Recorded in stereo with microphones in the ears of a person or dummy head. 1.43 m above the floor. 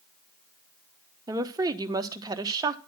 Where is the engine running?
I don't hear an engine running.